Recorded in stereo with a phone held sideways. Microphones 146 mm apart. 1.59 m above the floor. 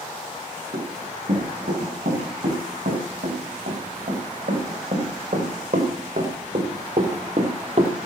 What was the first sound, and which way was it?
Running footsteps, 75° right (ahead or behind).